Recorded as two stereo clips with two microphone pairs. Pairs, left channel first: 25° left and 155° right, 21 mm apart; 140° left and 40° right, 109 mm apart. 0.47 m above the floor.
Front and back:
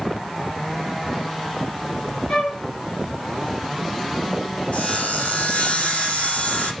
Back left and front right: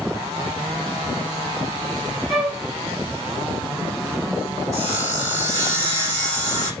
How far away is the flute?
About 3.5 m.